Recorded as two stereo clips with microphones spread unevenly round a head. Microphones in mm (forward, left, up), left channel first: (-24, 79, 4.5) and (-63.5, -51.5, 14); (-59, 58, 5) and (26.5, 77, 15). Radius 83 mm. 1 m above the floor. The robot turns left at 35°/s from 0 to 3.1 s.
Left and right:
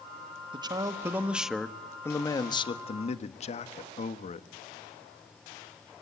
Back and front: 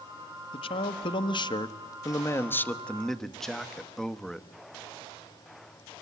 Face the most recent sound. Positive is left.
turn(degrees=110)